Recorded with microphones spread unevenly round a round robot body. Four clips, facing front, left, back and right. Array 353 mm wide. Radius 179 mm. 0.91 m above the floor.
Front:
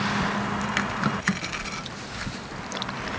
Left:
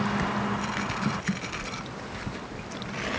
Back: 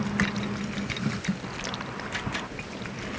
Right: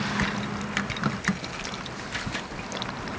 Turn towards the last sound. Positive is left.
No sound to turn to.